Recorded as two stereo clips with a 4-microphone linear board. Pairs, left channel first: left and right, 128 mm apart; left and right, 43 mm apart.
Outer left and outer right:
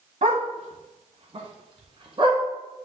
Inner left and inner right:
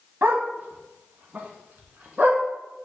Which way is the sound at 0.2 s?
65° right (ahead or behind).